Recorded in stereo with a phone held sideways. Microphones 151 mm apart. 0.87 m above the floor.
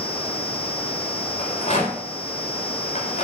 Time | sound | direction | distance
1.4 | a rattle | 55° left (ahead or behind) | 4.5 m